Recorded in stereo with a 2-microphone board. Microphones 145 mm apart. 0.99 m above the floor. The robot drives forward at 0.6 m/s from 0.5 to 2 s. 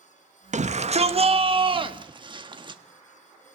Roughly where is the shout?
Right.